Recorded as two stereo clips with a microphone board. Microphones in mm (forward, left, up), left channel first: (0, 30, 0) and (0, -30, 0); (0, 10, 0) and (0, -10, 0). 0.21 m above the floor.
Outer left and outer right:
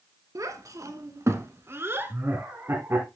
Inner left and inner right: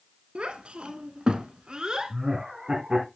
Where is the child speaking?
65° right (ahead or behind), 1.3 m; by 2.1 s 35° right (ahead or behind), 1.4 m.